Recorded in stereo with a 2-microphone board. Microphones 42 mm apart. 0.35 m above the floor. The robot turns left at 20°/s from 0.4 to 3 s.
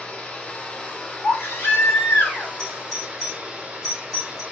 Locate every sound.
0.0 s running water: 25° left, 1.4 m; by 4.5 s 25° right, 1.4 m
1.2 s a baby crying: 70° left (ahead or behind), 1.5 m; by 2.5 s 45° left (ahead or behind), 1.5 m
2.6 s a doorbell: centre (ahead or behind), 2.5 m; by 4.4 s 5° right (ahead or behind), 2.5 m